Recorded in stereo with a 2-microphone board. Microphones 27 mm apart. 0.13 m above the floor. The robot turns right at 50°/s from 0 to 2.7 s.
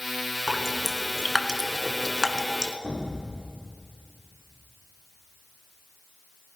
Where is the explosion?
35° right (ahead or behind), 7 m.